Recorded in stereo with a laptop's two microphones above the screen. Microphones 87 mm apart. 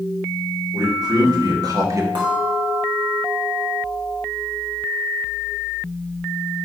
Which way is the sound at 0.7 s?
55° right (ahead or behind).